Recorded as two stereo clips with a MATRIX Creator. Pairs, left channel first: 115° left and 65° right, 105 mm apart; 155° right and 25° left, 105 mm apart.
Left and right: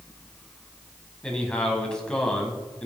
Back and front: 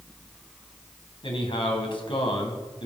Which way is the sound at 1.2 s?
170° right.